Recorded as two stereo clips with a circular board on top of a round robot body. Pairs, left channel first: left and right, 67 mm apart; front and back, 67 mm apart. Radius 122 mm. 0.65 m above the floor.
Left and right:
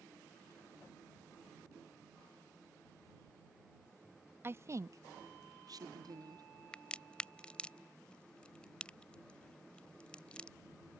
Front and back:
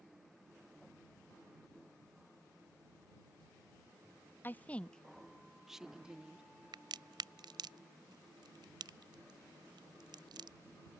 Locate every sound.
4.4 s a woman speaking: 50° right; by 6.5 s 105° right
6.7 s a crack: 165° left